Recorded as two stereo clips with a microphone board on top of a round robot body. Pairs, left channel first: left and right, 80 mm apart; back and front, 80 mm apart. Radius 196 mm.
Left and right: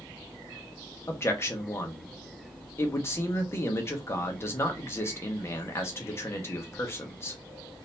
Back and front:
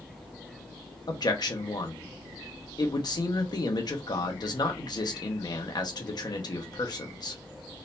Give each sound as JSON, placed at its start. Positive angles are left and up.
{"t": 1.1, "sound": "a man speaking", "azimuth_deg": 150, "distance_m": 1.4}